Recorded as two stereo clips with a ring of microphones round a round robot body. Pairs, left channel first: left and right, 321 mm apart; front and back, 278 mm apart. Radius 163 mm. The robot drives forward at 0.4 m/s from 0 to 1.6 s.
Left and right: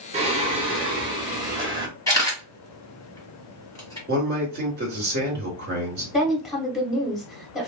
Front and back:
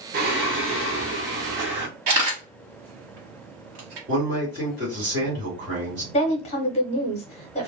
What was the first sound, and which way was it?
Singing, 150° right.